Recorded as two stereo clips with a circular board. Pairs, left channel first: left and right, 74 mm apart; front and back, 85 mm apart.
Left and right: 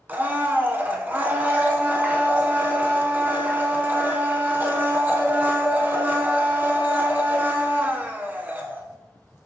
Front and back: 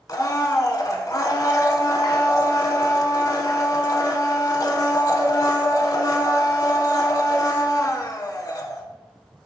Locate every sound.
0.1 s a blender: 30° right, 0.5 m